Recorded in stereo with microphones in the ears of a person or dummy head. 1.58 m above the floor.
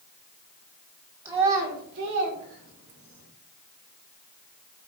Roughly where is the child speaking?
Centre.